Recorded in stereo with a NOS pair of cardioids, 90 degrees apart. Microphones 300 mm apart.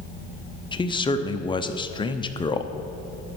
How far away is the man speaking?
About 0.6 m.